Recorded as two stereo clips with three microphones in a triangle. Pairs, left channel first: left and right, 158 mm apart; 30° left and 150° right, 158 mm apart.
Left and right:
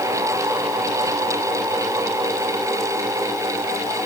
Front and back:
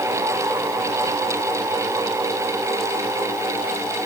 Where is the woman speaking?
I don't hear a woman speaking.